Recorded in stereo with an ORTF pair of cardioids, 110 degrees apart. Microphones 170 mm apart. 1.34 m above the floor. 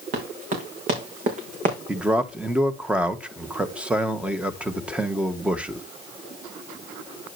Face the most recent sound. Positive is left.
turn(degrees=-5)